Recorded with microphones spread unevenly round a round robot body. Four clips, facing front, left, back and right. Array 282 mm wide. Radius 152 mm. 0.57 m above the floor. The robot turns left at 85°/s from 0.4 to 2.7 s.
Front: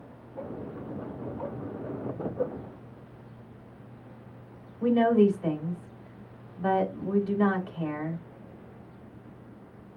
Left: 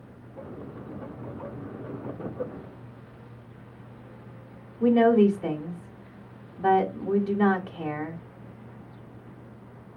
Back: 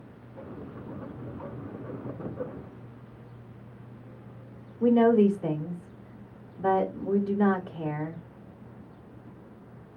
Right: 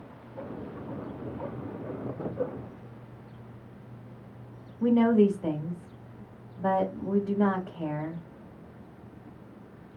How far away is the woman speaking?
About 2.5 m.